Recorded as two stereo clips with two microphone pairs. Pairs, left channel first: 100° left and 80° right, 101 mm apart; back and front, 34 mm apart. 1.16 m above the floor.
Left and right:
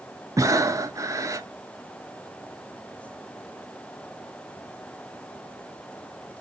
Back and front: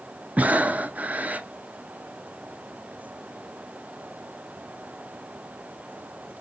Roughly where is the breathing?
Ahead right.